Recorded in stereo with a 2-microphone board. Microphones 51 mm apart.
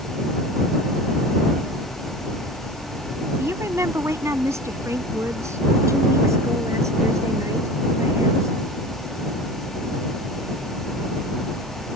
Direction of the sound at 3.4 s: 60° right (ahead or behind).